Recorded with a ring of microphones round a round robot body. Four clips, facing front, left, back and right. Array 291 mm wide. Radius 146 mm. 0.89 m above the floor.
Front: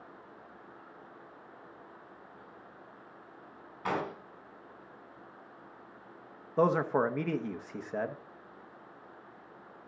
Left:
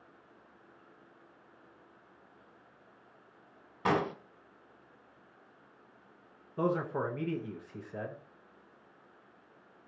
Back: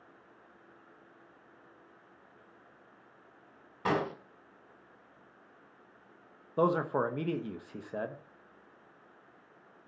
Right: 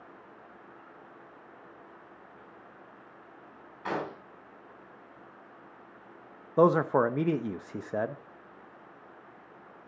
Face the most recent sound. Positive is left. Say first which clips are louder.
# right 9 dB, front 2 dB
turn(degrees=-80)